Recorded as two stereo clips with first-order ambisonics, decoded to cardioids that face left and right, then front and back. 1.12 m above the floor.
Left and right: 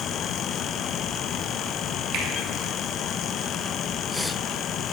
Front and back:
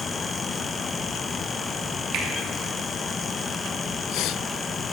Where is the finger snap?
135° right, 2 m.